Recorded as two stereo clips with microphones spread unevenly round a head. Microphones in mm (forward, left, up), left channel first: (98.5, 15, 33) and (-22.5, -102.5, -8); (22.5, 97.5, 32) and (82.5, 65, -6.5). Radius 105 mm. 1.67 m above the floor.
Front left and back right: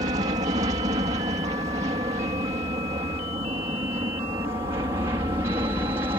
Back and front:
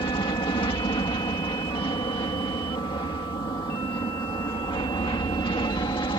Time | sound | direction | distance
0.0 | an aircraft | 160° left | ?